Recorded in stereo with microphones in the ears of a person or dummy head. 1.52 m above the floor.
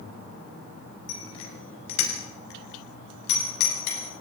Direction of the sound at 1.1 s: 75° left (ahead or behind).